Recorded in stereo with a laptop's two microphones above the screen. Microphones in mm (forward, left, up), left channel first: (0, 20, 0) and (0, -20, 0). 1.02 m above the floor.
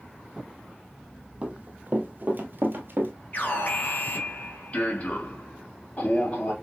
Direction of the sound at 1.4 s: 30° right (ahead or behind).